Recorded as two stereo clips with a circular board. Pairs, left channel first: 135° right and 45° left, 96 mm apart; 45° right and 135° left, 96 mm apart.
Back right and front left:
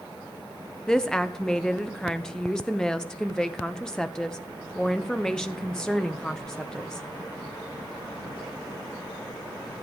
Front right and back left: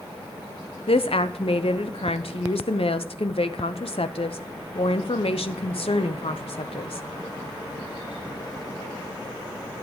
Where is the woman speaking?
50° right, 0.8 m.